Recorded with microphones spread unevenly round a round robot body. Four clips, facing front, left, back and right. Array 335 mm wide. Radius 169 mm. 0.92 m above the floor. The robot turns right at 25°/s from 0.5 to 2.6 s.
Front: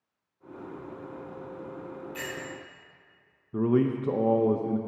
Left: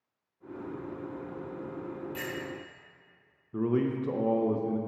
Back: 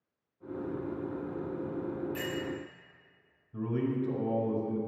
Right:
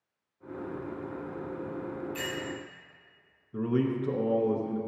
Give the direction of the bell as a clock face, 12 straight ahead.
7 o'clock.